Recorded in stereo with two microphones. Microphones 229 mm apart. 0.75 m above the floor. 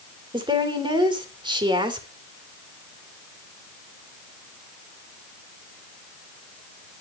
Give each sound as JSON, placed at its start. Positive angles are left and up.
{"t": 0.3, "sound": "a woman speaking", "side_deg": -20, "distance_m": 3.0}